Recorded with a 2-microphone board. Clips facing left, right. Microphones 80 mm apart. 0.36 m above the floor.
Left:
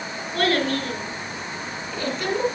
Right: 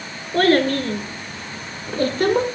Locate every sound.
0.3 s a child speaking: 35° right (ahead or behind), 4.5 m; by 2.5 s 50° right (ahead or behind), 3 m